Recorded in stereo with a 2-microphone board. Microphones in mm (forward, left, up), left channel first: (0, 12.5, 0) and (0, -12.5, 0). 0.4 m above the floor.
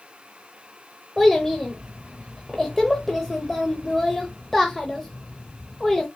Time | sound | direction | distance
1.2 | a child speaking | 10° left (ahead or behind) | 0.7 m